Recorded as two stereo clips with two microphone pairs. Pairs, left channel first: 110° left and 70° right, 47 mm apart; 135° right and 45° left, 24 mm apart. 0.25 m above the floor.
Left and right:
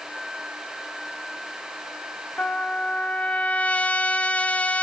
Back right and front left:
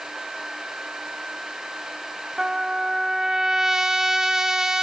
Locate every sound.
2.4 s a trumpet: 95° left, 1.5 m